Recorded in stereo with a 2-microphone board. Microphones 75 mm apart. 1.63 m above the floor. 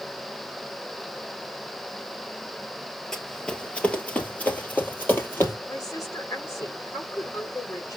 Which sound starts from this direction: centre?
Running footsteps, at 3.1 s.